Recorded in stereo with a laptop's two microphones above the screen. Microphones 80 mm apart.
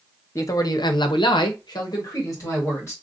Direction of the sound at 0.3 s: 35° left (ahead or behind).